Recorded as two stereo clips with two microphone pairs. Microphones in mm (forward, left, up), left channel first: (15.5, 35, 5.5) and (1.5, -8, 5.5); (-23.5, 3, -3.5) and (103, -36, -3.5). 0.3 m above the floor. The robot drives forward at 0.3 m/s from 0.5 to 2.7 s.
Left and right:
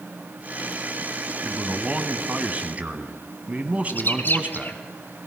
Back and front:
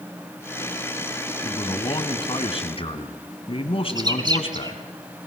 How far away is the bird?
About 1.4 m.